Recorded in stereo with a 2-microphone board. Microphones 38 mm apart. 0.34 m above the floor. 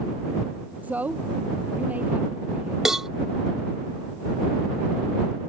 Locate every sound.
0.8 s a woman speaking: 45° right (ahead or behind)
2.9 s a cowbell: 10° right (ahead or behind)